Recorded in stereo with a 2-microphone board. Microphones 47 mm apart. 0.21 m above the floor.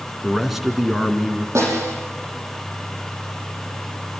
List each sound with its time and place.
0.2 s a man speaking: 5° right (ahead or behind), 2 m
1.6 s a snare drum: 80° right, 7 m